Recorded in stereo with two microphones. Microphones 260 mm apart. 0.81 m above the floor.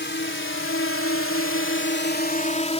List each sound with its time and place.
0.0 s a drone: 45° left (ahead or behind); by 2.8 s 25° left (ahead or behind)